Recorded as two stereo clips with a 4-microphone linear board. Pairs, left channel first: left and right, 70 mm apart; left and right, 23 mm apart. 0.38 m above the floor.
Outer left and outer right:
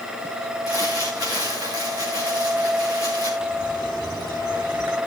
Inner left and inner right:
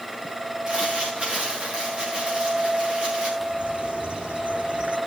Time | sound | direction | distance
0.7 | crumpling | 55° right (ahead or behind) | 6.5 m
3.4 | a bird | 75° right (ahead or behind) | 4 m